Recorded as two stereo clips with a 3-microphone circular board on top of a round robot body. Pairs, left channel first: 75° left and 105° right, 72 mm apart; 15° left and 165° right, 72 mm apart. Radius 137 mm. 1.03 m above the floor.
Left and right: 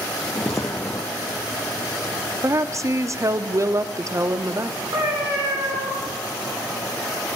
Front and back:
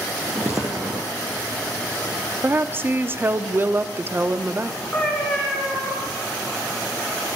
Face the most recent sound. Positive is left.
turn(degrees=-65)